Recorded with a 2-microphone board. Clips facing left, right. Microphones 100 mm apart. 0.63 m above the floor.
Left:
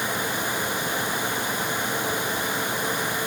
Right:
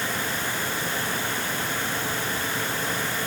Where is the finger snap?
I don't hear a finger snap.